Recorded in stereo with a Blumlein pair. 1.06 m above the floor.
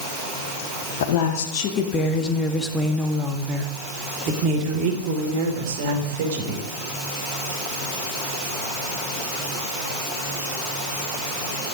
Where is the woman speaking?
50° left, 2 m; by 6.7 s 55° right, 4 m.